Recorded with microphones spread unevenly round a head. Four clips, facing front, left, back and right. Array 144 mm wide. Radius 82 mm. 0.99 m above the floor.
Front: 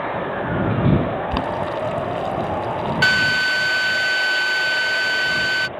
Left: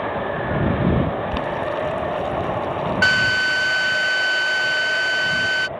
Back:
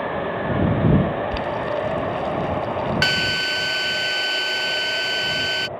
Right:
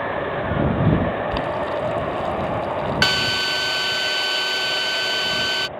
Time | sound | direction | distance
1.3 | boiling | straight ahead | ?
3.0 | a drill | 120° right | ?